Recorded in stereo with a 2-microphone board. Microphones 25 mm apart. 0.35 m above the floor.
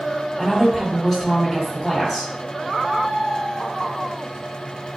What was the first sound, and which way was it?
A woman speaking, 5° left (ahead or behind).